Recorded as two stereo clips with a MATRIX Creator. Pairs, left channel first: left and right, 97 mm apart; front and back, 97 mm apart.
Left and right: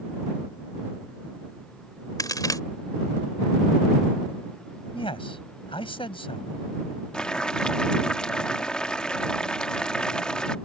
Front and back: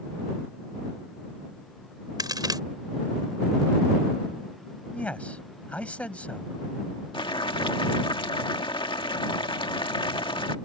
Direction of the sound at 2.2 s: 140° left.